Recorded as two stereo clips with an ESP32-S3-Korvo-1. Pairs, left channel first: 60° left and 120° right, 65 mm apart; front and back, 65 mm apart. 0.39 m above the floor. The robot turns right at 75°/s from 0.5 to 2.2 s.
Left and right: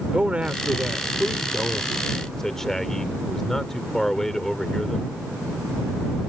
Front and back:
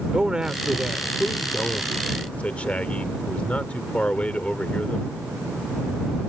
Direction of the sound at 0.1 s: 135° right.